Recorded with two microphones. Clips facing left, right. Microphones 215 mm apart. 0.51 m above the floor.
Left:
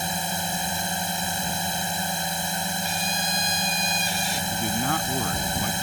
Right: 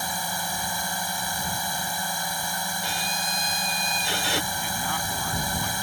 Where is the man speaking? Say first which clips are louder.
Left 6 dB; 50° left (ahead or behind).